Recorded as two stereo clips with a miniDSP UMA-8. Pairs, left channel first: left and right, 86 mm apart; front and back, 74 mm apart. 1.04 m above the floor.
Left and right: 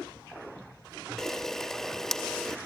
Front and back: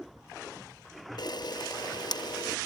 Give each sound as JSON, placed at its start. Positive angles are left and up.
{"t": 1.2, "sound": "a camera shutter", "azimuth_deg": 5, "distance_m": 0.8}